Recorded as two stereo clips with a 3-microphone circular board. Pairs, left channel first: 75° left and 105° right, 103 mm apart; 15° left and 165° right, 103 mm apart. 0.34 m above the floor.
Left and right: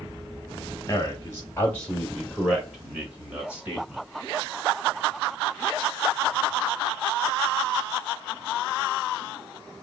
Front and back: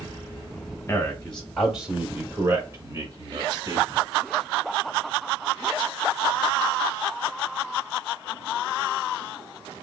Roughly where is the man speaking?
Ahead left.